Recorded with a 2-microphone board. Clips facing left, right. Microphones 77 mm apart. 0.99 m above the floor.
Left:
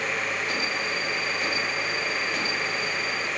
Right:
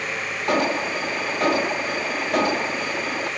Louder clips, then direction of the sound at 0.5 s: Right 7 dB; 70° right (ahead or behind).